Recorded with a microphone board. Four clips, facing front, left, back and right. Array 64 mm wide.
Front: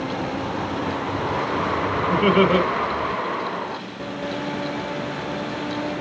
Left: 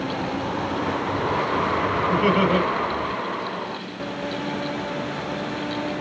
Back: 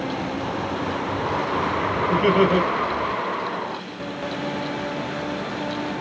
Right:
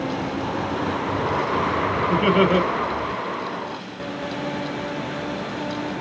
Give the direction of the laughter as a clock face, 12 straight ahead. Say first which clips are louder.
Right 2 dB, front 1 dB; 1 o'clock.